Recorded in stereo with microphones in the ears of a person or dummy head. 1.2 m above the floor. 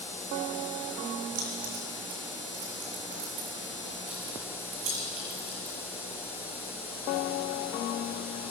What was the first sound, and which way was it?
Keys jangling, 60° right (ahead or behind).